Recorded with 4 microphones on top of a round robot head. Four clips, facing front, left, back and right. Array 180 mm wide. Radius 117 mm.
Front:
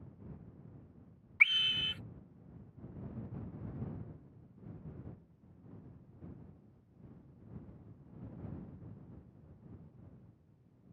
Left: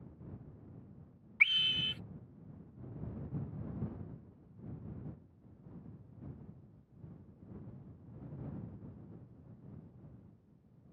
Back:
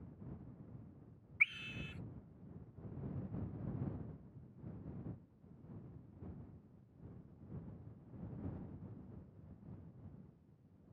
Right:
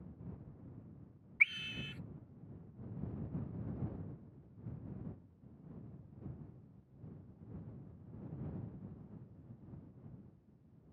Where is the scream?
20° left.